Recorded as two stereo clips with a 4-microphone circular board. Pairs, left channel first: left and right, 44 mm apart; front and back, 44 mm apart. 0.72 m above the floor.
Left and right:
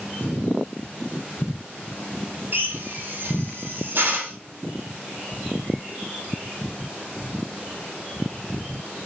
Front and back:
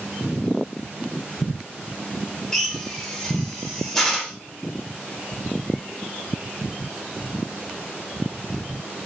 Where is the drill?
85° right, 1.4 m.